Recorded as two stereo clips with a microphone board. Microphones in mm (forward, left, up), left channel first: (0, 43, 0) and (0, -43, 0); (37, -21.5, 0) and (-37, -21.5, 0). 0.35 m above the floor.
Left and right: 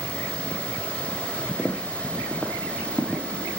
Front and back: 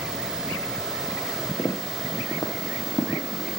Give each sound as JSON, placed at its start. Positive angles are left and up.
{"t": 1.6, "sound": "footsteps", "azimuth_deg": 0, "distance_m": 0.7}